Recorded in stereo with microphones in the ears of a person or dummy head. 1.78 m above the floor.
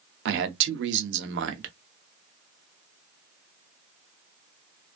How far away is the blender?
No blender in this recording.